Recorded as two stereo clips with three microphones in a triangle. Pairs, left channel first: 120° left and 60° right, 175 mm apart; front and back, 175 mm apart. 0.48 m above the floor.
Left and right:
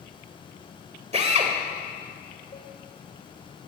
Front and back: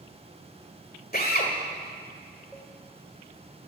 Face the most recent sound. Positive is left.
turn(degrees=85)